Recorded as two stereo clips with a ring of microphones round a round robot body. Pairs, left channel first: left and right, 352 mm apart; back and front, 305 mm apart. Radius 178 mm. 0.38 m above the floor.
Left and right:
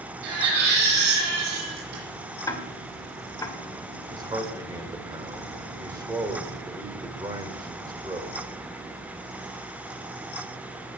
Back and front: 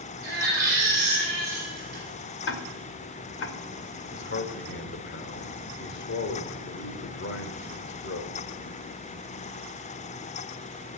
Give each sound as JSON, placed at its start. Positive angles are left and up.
{"t": 0.2, "sound": "a baby crying", "azimuth_deg": -80, "distance_m": 8.5}
{"t": 2.5, "sound": "ticking", "azimuth_deg": 165, "distance_m": 1.9}
{"t": 4.1, "sound": "a man speaking", "azimuth_deg": -165, "distance_m": 1.7}